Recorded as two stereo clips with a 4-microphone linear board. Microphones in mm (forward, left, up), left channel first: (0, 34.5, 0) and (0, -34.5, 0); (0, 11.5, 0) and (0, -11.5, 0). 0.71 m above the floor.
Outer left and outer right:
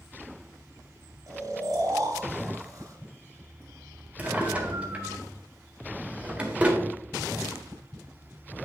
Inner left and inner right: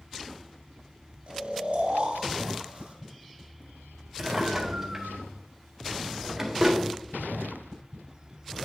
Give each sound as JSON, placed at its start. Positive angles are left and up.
{"t": 1.3, "sound": "snoring", "side_deg": -60, "distance_m": 3.0}
{"t": 4.2, "sound": "a drawer", "side_deg": -20, "distance_m": 1.7}